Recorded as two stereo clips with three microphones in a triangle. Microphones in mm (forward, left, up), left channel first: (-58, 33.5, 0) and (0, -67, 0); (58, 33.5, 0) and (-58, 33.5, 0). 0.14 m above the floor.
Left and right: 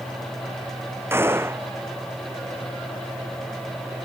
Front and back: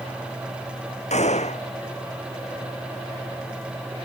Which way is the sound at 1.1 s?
10° left.